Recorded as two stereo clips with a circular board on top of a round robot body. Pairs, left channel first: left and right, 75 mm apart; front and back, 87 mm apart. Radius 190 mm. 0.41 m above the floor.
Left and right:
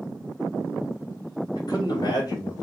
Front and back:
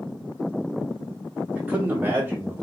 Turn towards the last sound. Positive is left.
turn(degrees=120)